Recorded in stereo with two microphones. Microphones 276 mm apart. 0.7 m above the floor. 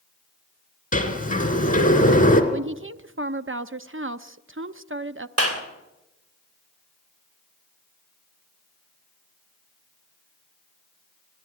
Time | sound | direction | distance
0.9 | a sliding door | 30° left (ahead or behind) | 2.5 m
2.5 | a woman speaking | 45° right (ahead or behind) | 0.6 m
5.4 | a clap | 60° right (ahead or behind) | 3 m